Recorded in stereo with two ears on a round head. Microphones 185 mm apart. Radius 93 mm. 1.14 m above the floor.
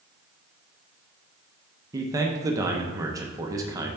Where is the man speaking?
15° right (ahead or behind), 0.7 m.